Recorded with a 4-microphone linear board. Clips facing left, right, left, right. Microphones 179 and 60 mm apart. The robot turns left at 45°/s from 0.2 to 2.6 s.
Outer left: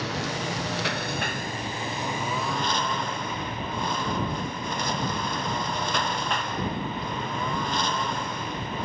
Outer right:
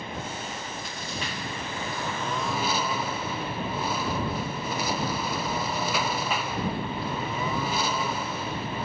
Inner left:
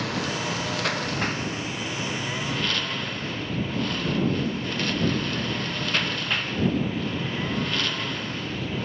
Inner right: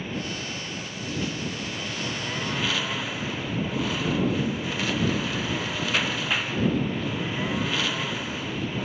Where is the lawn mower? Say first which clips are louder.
Outer left 5 dB, inner left 4 dB; 100° left; by 8.9 s 5° right.